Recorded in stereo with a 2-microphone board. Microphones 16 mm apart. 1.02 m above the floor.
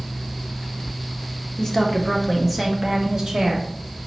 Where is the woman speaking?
30° left (ahead or behind), 0.8 m; by 3.7 s 40° right (ahead or behind), 1.1 m.